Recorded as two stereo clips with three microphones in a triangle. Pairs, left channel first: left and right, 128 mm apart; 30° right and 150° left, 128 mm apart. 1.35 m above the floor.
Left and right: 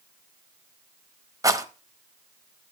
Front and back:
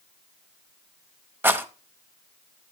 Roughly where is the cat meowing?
No cat meowing in this recording.